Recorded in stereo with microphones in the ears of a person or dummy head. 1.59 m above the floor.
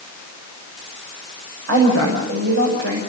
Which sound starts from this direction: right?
A woman speaking, at 1.7 s.